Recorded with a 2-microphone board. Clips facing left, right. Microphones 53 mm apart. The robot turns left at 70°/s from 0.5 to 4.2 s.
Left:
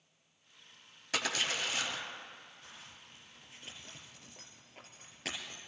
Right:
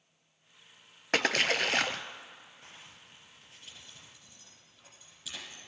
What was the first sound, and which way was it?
A splash, 60° right.